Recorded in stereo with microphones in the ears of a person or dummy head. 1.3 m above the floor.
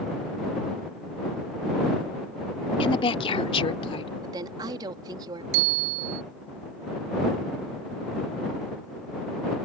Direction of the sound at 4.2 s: 25° right (ahead or behind).